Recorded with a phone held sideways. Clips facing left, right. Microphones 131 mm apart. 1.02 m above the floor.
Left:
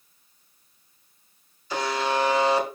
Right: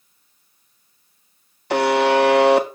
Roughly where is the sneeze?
I don't hear a sneeze.